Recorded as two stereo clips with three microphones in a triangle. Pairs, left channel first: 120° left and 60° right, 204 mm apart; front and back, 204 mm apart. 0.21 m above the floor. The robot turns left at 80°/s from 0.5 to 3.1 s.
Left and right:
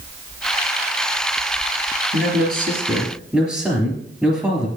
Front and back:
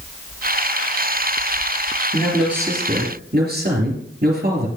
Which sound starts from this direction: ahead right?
A man speaking, at 2.1 s.